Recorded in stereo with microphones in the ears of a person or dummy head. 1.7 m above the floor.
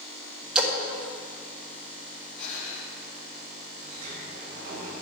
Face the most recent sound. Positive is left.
turn(degrees=-45)  # may be behind; listen again after turning